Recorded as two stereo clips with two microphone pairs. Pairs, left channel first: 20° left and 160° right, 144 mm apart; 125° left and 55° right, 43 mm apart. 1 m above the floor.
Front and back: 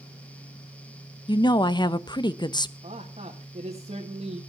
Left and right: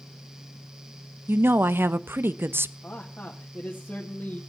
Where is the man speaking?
170° left, 1.8 m.